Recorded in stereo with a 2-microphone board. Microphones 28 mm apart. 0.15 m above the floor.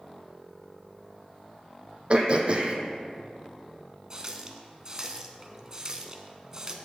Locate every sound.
2.1 s throat clearing: 45° right (ahead or behind), 0.9 m
4.1 s a running tap: 25° right (ahead or behind), 0.7 m